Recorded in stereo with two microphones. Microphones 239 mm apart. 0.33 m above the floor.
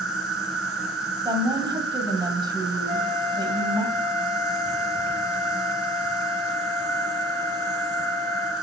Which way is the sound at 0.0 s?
75° right (ahead or behind).